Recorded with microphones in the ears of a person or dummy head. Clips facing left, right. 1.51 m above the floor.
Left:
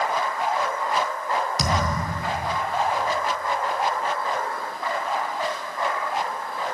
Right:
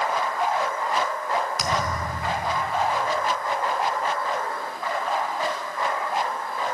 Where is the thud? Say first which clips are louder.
Left 1 dB; 30° left (ahead or behind), 3.5 m.